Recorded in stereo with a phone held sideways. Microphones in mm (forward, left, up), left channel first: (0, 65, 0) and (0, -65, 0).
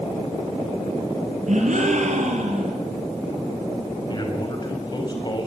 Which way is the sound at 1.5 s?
70° right (ahead or behind).